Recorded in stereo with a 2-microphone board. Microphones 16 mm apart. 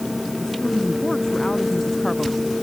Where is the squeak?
No squeak in this recording.